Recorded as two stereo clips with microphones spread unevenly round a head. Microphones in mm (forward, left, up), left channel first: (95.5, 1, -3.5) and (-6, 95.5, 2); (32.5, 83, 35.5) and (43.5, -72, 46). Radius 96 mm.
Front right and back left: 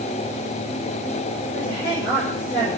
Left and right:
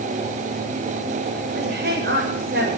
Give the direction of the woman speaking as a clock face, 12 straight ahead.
4 o'clock.